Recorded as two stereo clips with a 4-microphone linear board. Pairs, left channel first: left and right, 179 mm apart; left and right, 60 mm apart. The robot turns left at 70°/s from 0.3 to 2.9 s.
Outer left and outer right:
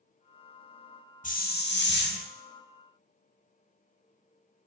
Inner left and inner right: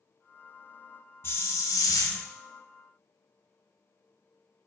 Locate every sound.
1.2 s a hiss: 135° left, 0.5 m; by 2.2 s 65° left, 0.5 m